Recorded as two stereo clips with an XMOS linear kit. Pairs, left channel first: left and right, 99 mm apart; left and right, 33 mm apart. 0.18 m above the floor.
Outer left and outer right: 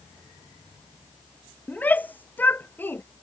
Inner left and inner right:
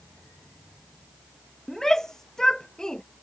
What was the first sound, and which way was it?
A shout, 15° left (ahead or behind).